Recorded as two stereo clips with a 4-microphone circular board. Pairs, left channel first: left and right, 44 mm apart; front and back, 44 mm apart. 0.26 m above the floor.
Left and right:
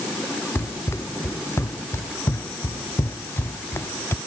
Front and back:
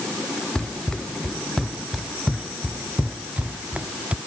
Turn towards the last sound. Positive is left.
turn(degrees=125)